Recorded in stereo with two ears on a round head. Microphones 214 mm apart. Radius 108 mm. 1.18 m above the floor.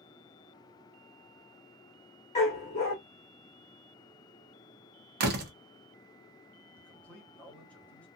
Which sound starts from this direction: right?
A door slam, at 5.2 s.